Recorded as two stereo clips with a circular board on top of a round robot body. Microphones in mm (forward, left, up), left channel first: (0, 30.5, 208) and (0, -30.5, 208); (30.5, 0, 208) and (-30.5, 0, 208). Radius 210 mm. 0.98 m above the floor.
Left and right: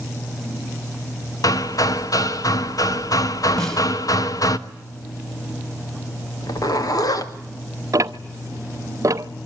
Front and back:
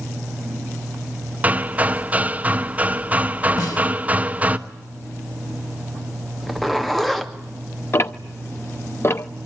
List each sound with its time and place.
1.4 s hammering: 110° left, 1.3 m
3.6 s a snare drum: 10° left, 5 m
6.4 s a zipper: 85° left, 2.5 m
7.9 s ticking: 55° right, 0.6 m